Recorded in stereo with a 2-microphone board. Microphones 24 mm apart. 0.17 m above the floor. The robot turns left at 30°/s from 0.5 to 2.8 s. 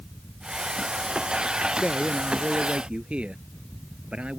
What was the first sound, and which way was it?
A man speaking, 40° right (ahead or behind).